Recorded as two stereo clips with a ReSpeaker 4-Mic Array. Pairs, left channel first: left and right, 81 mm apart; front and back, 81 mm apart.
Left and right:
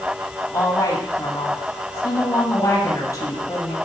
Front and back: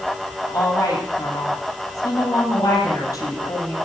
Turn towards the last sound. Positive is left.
turn(degrees=45)